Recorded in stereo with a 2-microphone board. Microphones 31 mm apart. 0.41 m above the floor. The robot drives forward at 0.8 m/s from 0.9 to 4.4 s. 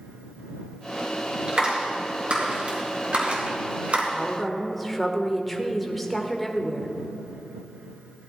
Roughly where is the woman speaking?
Centre.